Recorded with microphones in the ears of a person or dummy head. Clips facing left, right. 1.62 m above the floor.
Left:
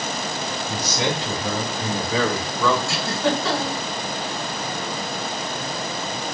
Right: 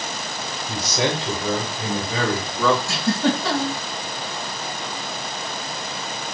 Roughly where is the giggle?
Right.